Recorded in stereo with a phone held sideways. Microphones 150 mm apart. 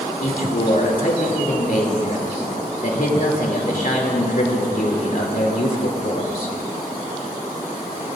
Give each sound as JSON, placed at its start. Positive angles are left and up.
{"t": 0.2, "sound": "a man speaking", "side_deg": 65, "distance_m": 3.0}